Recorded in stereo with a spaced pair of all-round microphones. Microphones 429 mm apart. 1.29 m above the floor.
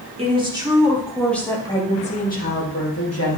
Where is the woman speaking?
15° right (ahead or behind), 2.5 m; by 3.4 s 35° left (ahead or behind), 2 m.